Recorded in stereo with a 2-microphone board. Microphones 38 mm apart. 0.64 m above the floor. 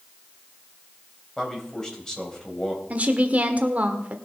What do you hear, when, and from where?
1.4 s a man speaking: 15° left (ahead or behind), 3.5 m
2.9 s a woman speaking: 40° right (ahead or behind), 1.6 m